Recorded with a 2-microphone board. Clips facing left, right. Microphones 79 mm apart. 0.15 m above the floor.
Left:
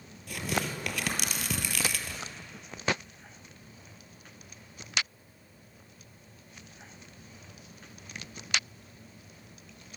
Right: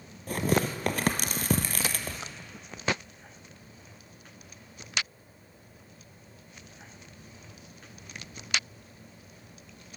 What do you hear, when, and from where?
0.3 s tearing paper: 45° right (ahead or behind), 0.7 m